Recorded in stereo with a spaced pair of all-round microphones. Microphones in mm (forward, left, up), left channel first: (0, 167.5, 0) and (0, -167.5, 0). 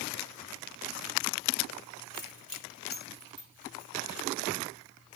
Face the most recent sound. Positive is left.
turn(degrees=50)  # may be behind; listen again after turning